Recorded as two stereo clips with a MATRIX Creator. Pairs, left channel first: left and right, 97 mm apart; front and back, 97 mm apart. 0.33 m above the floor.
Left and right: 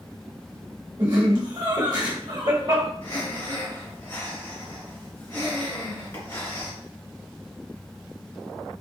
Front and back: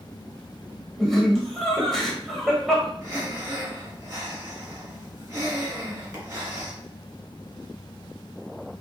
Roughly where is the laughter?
Right.